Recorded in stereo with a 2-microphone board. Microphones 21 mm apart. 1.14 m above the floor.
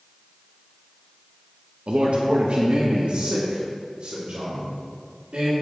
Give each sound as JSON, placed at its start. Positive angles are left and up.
{"t": 1.9, "sound": "a man speaking", "side_deg": -65, "distance_m": 0.9}